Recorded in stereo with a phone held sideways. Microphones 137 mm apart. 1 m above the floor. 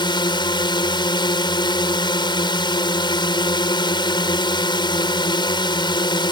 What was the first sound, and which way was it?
A drone, 30° left (ahead or behind).